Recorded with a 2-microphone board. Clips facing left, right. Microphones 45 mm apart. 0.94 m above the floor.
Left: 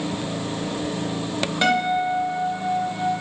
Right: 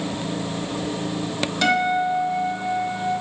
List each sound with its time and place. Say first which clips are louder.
1.6 s a guitar: right 1 dB; 20° left (ahead or behind), 0.8 m